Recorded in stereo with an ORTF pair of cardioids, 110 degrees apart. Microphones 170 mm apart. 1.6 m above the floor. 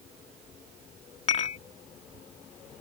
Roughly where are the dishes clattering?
Ahead left.